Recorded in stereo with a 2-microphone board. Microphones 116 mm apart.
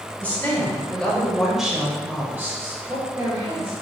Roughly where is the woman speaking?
Centre.